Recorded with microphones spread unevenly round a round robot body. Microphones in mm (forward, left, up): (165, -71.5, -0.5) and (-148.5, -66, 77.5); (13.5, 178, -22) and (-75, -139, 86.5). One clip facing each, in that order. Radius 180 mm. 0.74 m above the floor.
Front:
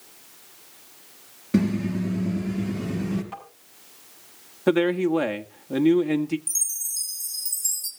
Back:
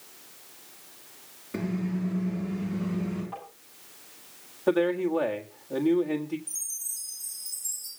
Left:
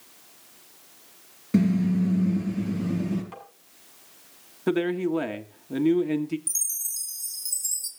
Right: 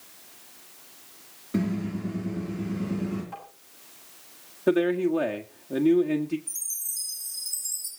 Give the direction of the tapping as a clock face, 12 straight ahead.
10 o'clock.